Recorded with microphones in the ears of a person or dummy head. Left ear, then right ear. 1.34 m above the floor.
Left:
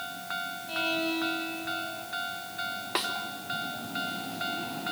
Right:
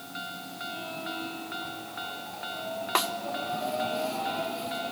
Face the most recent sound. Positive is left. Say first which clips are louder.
# right 4 dB
turn(degrees=-25)  # may be behind; listen again after turning